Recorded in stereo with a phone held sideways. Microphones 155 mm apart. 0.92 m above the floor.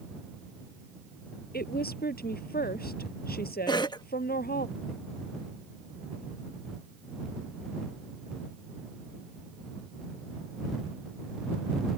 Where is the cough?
25° left (ahead or behind).